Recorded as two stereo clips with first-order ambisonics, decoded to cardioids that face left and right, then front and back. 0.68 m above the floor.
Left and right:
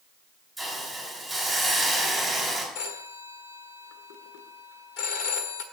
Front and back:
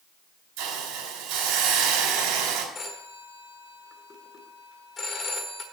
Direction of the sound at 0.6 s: 175° left.